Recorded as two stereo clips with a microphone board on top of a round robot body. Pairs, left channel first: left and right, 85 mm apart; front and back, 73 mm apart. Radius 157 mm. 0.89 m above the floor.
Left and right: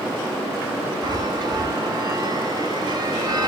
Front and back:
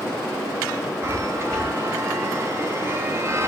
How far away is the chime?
About 2 m.